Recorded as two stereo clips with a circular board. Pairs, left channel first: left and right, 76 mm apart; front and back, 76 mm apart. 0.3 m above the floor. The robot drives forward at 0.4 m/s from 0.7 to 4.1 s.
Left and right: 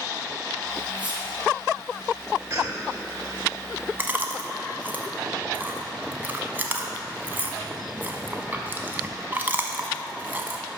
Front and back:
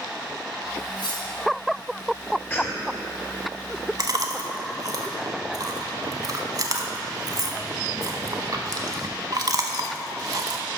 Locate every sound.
1.0 s cutlery clinking: 20° right, 3.5 m
2.5 s a cough: 55° right, 1.8 m; by 2.9 s 60° right, 1.8 m
4.0 s chewing: 150° right, 0.9 m; by 10.6 s 155° right, 0.9 m